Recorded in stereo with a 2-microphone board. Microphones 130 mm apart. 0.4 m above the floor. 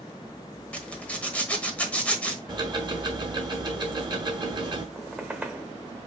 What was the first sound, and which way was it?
A zipper, 10° left (ahead or behind).